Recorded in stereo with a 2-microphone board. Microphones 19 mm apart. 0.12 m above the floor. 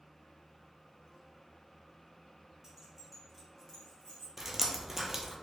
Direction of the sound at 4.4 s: 15° right (ahead or behind).